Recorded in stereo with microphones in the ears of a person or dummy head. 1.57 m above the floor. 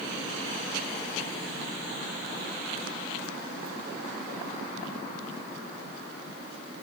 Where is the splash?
I don't hear a splash.